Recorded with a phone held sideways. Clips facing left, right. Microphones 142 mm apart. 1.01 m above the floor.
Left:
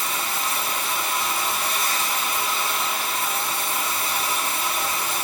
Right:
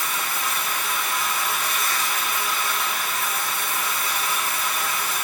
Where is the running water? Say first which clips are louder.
Left 1 dB; 30° left (ahead or behind), 3 m.